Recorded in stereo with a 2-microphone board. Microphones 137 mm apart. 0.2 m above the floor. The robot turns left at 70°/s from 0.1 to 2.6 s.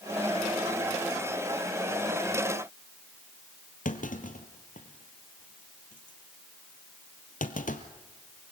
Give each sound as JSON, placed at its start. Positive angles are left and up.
{"t": 3.9, "sound": "a clunk", "side_deg": 75, "distance_m": 1.7}